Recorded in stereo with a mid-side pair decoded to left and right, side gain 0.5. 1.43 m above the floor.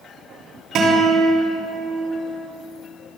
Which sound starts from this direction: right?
A guitar, at 0.8 s.